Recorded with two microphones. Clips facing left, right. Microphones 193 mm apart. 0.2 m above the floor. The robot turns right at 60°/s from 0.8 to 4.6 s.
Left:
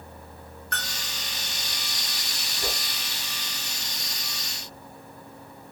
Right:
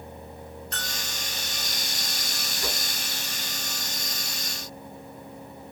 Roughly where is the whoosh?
Left.